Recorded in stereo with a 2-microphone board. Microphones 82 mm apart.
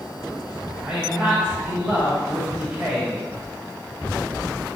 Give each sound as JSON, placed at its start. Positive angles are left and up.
{"t": 0.8, "sound": "a man speaking", "side_deg": -10, "distance_m": 3.5}